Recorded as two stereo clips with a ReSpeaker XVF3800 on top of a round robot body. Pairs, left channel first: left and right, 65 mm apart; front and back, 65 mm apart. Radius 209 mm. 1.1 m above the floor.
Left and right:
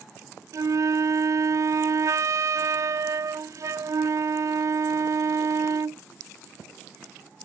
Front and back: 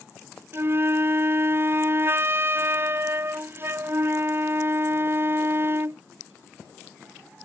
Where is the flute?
125° right.